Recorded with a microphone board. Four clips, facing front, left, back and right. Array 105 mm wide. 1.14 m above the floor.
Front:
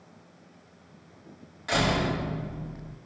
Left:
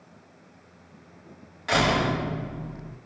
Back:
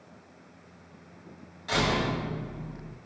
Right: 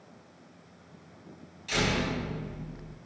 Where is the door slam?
75° left, 5.5 m.